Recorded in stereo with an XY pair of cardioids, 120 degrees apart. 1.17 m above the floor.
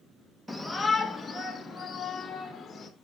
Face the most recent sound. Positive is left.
turn(degrees=25)